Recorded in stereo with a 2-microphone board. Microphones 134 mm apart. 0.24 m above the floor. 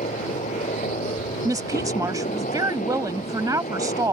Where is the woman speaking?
25° right (ahead or behind).